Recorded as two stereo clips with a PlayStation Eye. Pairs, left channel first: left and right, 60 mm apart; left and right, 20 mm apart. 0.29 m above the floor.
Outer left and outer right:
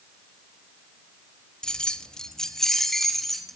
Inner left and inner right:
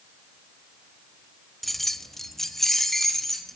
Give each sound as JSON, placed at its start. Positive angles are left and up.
{"t": 1.6, "sound": "keys jangling", "side_deg": 10, "distance_m": 0.7}